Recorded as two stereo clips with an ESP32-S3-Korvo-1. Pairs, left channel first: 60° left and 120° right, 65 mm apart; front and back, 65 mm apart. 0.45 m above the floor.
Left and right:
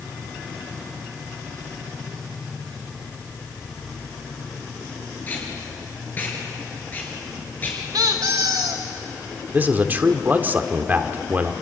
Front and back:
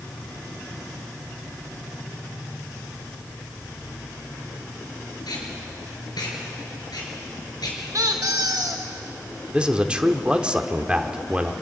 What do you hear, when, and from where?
5.3 s tape being pulled: straight ahead, 4.5 m
7.9 s a squeak: 140° right, 2.5 m
9.5 s a man speaking: 125° right, 1.1 m